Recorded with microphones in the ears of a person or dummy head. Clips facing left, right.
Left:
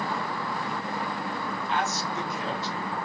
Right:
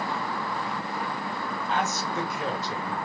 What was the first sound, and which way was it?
A man speaking, 35° right (ahead or behind).